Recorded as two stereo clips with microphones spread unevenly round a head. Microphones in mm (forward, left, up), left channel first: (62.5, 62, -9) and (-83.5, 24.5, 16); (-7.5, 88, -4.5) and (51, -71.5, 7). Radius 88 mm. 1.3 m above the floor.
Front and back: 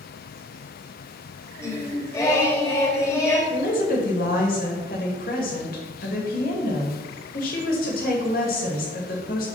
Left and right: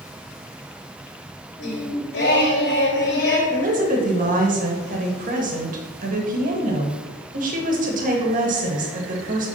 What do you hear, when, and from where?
1.6 s singing: 85° left, 2.5 m
3.5 s a woman speaking: 25° right, 2 m